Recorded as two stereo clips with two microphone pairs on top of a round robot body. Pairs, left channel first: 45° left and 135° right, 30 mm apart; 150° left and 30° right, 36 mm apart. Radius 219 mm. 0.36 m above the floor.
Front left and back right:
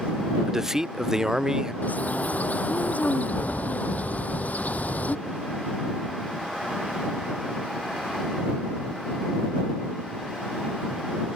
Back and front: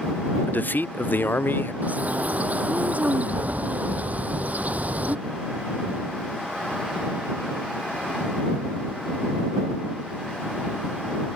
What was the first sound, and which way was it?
A man speaking, 155° left.